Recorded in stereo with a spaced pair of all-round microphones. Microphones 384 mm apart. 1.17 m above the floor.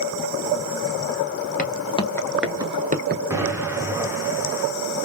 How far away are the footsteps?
About 1.4 m.